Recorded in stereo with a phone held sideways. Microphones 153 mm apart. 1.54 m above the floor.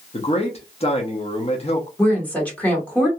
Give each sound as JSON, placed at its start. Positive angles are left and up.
{"t": 0.1, "sound": "a man speaking", "side_deg": 40, "distance_m": 0.8}
{"t": 2.0, "sound": "a woman speaking", "side_deg": 10, "distance_m": 1.3}